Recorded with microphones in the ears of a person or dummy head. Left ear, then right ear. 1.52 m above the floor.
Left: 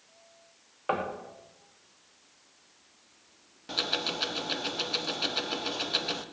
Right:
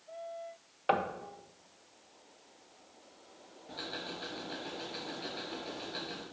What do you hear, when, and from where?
0.9 s knocking: 20° right (ahead or behind), 0.6 m
3.7 s ticking: 60° left (ahead or behind), 0.6 m